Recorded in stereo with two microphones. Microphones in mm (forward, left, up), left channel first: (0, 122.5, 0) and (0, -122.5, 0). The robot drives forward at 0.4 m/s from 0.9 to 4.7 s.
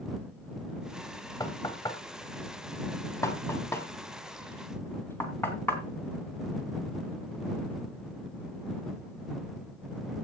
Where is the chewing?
I don't hear chewing.